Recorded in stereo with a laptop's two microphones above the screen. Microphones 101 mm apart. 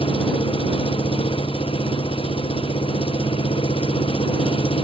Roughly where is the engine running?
Left.